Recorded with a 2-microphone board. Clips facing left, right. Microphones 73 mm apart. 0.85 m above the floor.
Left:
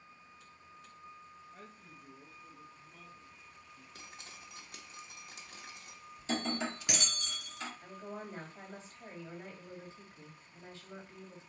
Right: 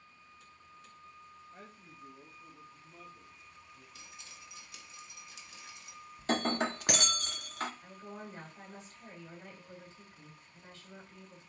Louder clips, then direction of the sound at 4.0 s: Left 4 dB; 50° left (ahead or behind).